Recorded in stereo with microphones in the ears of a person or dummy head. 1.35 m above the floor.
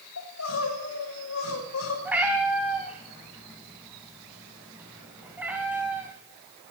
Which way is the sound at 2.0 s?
5° right (ahead or behind).